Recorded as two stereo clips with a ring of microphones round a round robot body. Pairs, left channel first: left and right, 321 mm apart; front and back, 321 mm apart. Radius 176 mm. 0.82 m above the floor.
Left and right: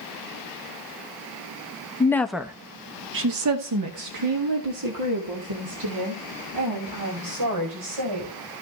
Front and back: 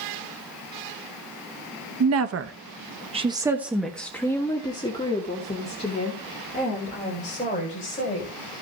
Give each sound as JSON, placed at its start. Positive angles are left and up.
{"t": 2.0, "sound": "a woman speaking", "azimuth_deg": 165, "distance_m": 1.1}